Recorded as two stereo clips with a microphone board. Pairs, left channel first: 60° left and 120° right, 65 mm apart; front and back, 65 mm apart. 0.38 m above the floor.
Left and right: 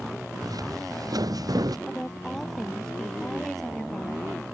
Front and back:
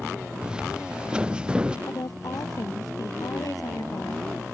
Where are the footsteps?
105° right.